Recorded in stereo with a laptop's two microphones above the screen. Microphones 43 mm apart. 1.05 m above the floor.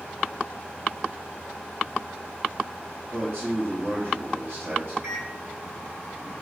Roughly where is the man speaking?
Right.